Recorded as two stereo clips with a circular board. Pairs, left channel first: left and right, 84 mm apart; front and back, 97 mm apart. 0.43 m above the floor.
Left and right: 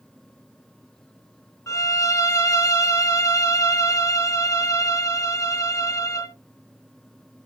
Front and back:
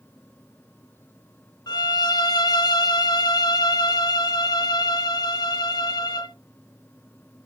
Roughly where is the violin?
Ahead left.